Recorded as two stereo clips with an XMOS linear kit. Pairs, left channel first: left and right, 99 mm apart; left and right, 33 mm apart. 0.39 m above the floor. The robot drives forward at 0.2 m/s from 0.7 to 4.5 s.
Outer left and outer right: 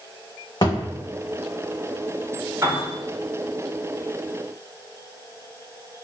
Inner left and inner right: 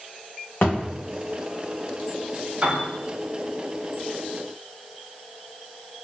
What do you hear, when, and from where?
0.6 s a thud: 45° left (ahead or behind), 1.1 m
2.6 s a piano: 25° right (ahead or behind), 1.1 m